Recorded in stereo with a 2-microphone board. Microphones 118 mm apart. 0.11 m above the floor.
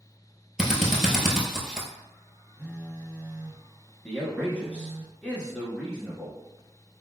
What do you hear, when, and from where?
0.6 s a drill: 5° right (ahead or behind), 0.8 m
2.6 s a phone buzzing: 10° right (ahead or behind), 0.9 m
4.0 s a man speaking: 10° left (ahead or behind), 1.1 m